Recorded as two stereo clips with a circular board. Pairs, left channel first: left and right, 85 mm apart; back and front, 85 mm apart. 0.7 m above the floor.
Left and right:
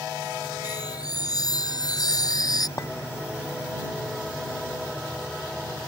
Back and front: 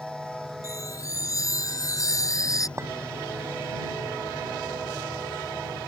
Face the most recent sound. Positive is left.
turn(degrees=50)